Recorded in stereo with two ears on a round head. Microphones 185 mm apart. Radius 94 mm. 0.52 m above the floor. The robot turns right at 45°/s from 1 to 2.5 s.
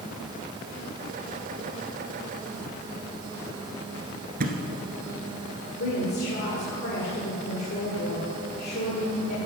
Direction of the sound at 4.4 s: 50° right (ahead or behind).